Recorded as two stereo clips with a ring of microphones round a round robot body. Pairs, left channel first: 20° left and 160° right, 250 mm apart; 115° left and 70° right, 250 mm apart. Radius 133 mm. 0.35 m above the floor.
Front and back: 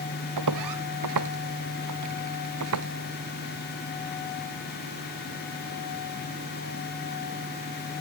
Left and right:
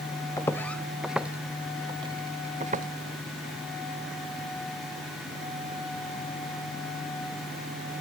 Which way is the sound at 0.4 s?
170° right.